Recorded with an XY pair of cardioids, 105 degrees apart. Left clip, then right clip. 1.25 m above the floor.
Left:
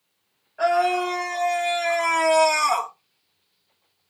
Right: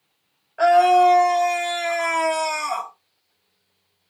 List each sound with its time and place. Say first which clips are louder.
0.6 s a scream: right 7 dB; 50° right, 1.7 m; by 2.9 s 50° left, 0.9 m